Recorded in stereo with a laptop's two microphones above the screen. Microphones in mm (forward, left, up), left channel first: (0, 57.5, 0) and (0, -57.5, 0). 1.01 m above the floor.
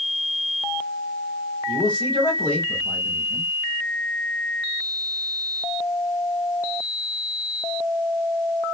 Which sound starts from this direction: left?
A man speaking, at 1.7 s.